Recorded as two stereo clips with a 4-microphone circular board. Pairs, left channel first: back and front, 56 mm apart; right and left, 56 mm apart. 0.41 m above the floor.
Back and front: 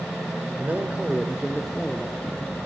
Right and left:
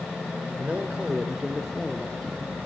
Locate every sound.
0.6 s a man speaking: 35° left, 1.4 m; by 2.6 s 150° right, 1.3 m